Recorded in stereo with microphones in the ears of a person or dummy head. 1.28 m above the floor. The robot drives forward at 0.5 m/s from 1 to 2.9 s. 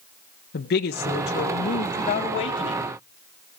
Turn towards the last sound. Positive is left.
turn(degrees=25)  # may be behind; listen again after turning